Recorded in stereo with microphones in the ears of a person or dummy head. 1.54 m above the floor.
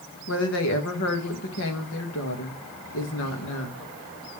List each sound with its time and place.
0.3 s a woman speaking: 70° left (ahead or behind), 1.7 m